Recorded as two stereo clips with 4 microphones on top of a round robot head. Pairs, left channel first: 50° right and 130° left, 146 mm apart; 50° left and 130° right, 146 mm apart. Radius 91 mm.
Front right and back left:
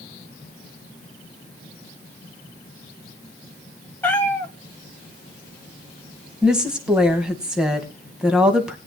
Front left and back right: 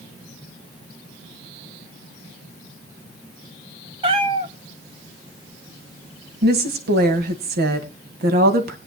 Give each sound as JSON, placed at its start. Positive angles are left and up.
{"t": 4.0, "sound": "a cat meowing", "azimuth_deg": -115, "distance_m": 0.8}
{"t": 6.4, "sound": "a woman speaking", "azimuth_deg": -145, "distance_m": 2.5}